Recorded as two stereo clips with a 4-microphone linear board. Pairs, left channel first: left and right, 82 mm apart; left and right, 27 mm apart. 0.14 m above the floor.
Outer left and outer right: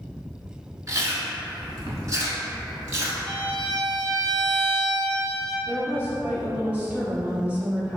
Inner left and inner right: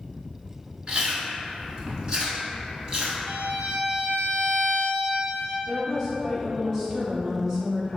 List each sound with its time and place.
0.9 s chewing: 40° right (ahead or behind), 0.7 m
3.3 s a violin: 50° right (ahead or behind), 1.4 m
5.7 s a woman speaking: 15° right (ahead or behind), 1.1 m